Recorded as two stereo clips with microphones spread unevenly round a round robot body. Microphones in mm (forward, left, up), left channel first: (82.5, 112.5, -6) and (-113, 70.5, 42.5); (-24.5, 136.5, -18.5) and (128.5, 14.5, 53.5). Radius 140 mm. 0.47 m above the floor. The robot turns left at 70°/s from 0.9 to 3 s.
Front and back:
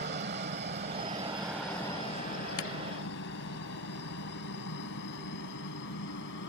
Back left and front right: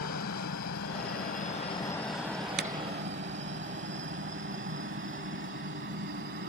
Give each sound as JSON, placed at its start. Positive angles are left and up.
{"t": 0.0, "sound": "a helicopter", "azimuth_deg": 155}
{"t": 2.6, "sound": "a clap", "azimuth_deg": 0}